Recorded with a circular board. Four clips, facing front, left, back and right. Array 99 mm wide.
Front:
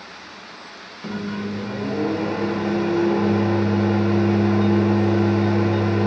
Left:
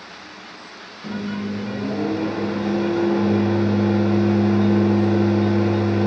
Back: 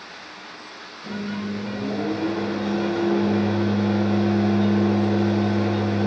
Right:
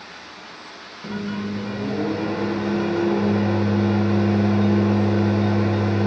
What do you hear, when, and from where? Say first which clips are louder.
1.0 s a microwave: left 1 dB, front 2 dB; 10° right, 1.2 m